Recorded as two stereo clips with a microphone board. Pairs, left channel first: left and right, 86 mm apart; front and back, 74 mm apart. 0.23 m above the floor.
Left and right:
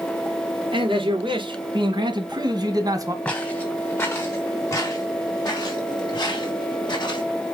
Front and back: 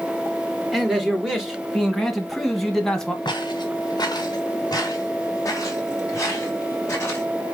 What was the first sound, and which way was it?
A man speaking, 95° right.